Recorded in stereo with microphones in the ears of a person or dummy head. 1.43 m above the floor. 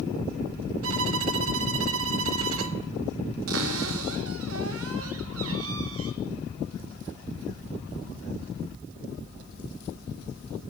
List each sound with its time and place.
0.8 s a violin: 75° right (ahead or behind), 2.5 m
3.5 s a cupboard door: 80° right, 5 m